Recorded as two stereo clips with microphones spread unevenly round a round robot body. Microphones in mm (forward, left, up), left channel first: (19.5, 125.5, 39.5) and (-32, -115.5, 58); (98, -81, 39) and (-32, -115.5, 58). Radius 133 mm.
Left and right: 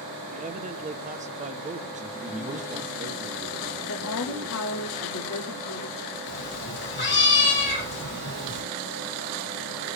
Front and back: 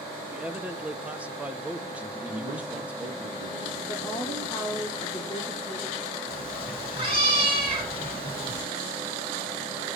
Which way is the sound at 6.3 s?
125° left.